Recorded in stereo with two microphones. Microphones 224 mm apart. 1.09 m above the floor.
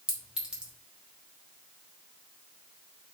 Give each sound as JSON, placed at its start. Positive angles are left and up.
{"t": 0.1, "sound": "a clink", "side_deg": -5, "distance_m": 1.3}